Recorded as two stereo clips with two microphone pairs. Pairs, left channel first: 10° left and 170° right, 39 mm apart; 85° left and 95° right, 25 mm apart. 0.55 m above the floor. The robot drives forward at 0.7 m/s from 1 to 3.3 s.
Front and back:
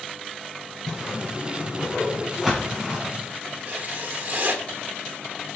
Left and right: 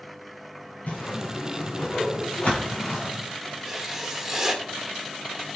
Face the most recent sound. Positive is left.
turn(degrees=180)